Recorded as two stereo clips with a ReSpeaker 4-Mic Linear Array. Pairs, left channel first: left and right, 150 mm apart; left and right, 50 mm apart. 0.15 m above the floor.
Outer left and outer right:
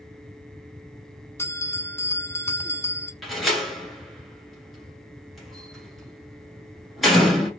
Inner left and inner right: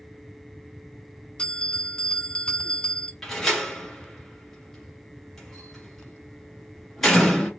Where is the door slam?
Centre (ahead or behind), 1.7 m.